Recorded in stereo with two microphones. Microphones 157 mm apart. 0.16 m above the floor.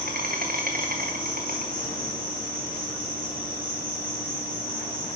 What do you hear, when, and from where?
0.0 s an insect: 75° right (ahead or behind), 1.7 m